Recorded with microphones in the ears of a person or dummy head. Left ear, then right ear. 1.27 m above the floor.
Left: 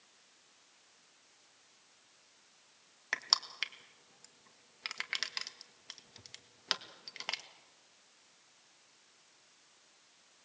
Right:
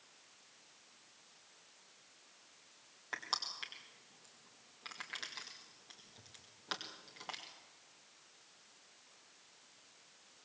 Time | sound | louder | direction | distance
3.1 | crushing | left 7 dB | 70° left (ahead or behind) | 1.8 m